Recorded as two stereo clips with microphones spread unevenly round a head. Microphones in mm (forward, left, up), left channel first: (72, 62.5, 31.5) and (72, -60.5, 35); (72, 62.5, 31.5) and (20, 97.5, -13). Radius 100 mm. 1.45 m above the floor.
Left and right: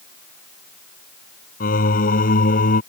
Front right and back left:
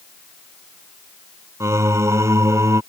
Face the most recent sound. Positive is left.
turn(degrees=100)